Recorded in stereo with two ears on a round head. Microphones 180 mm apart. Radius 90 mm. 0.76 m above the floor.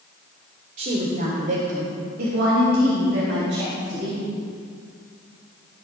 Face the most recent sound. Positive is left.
turn(degrees=-80)